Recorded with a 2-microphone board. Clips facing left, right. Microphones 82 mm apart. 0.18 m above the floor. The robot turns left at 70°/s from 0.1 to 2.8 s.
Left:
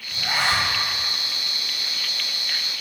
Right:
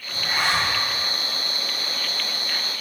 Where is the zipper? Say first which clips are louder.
Even; 100° left, 2.5 m; by 0.7 s 55° left, 2.5 m.